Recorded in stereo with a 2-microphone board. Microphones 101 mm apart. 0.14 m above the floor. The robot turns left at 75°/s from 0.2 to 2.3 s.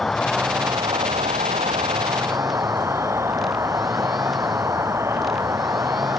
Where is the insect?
5° left; by 6.2 s 155° right.